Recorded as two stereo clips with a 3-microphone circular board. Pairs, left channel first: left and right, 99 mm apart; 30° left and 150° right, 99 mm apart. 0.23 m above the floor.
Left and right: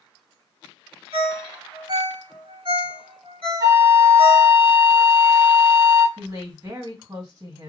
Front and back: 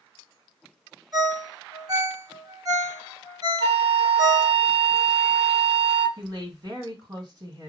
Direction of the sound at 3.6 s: 145° right.